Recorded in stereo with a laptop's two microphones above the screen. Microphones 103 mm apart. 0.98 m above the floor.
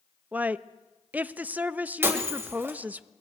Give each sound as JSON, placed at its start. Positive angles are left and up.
{"t": 0.3, "sound": "a woman speaking", "side_deg": -15, "distance_m": 0.8}
{"t": 2.0, "sound": "breaking glass", "side_deg": -20, "distance_m": 1.7}